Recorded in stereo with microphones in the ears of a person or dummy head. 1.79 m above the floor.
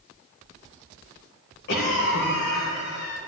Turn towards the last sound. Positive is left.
turn(degrees=55)  # may be behind; listen again after turning